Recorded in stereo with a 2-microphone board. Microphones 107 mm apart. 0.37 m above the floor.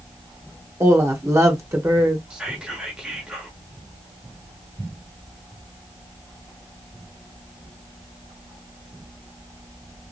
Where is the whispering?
10° right (ahead or behind), 0.8 m.